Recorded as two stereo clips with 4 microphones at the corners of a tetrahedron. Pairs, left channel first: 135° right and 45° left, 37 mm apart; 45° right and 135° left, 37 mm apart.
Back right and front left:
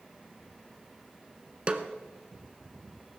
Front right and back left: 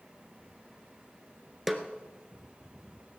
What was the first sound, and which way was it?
A snare drum, 50° left.